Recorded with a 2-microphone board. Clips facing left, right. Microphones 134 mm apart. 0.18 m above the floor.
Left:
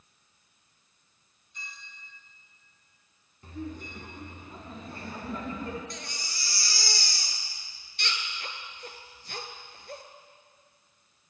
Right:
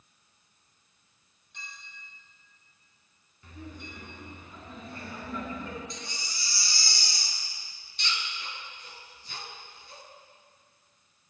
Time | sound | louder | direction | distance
1.5 | a clink | even | 75° right (ahead or behind) | 4.5 m
3.4 | laughter | left 6 dB | 40° left (ahead or behind) | 1.9 m
5.9 | a baby crying | even | 60° left (ahead or behind) | 1.0 m